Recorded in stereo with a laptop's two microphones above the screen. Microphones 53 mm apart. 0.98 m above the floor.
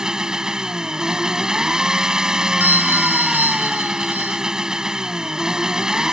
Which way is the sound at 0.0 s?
15° right (ahead or behind).